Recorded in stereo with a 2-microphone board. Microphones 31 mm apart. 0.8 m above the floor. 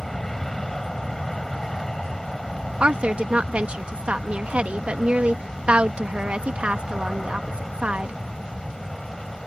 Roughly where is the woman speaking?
Right.